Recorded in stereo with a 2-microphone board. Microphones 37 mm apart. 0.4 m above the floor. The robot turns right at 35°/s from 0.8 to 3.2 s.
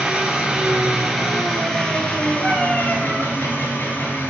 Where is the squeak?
I don't hear a squeak.